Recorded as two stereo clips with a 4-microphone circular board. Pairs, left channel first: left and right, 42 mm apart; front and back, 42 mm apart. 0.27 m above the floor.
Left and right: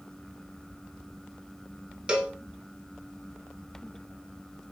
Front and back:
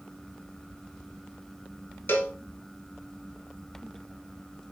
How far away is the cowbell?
About 0.6 m.